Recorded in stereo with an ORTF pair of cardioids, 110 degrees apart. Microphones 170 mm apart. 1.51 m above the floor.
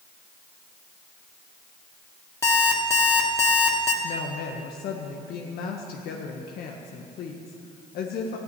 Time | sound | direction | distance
2.4 | an alarm clock | 20° left | 2 m
4.0 | a woman speaking | 70° left | 1.5 m